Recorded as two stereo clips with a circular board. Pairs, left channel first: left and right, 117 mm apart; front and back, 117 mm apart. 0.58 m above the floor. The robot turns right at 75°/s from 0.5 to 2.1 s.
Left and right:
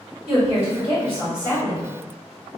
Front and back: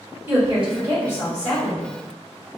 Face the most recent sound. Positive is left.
turn(degrees=5)